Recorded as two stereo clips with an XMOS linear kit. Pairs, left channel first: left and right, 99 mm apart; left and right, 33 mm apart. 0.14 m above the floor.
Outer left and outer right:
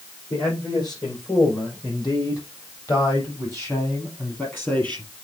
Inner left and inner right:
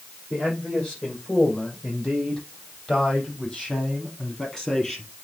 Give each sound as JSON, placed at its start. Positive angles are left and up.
{"t": 0.3, "sound": "a man speaking", "side_deg": 45, "distance_m": 6.5}